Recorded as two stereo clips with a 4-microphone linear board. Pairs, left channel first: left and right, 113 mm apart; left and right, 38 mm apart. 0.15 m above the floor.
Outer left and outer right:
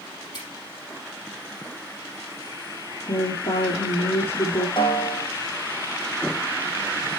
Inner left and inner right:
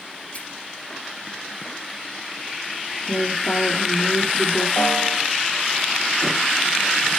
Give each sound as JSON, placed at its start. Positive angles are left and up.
{"t": 0.3, "sound": "a finger snap", "side_deg": 35, "distance_m": 4.5}
{"t": 3.1, "sound": "a woman speaking", "side_deg": 65, "distance_m": 2.5}
{"t": 4.8, "sound": "a snare drum", "side_deg": 45, "distance_m": 4.0}